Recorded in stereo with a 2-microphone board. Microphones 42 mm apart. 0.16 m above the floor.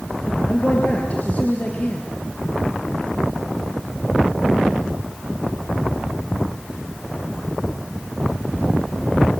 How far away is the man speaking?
About 3.5 m.